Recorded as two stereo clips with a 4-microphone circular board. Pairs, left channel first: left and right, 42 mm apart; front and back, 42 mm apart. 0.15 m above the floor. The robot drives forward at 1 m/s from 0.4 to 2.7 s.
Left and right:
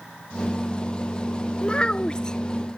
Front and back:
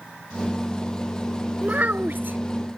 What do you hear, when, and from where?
1.6 s a child speaking: 145° left; by 2.4 s 160° left